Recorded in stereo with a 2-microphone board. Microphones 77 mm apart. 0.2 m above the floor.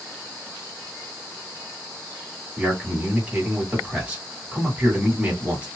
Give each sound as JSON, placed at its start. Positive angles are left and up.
{"t": 2.6, "sound": "a man speaking", "side_deg": -20, "distance_m": 1.7}